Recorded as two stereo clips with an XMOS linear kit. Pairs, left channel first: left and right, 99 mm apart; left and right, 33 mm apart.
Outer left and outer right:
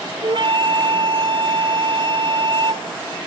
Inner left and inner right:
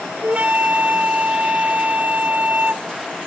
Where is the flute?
60° right (ahead or behind).